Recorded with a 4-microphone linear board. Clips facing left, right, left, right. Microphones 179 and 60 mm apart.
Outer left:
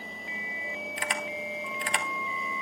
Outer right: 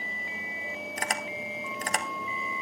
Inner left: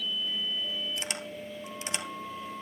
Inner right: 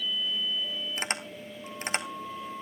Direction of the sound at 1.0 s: 45° right (ahead or behind).